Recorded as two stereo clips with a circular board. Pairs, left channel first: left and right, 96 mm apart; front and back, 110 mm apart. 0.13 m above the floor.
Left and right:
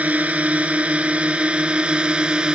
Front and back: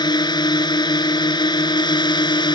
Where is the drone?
25° right; by 2.5 s 15° right.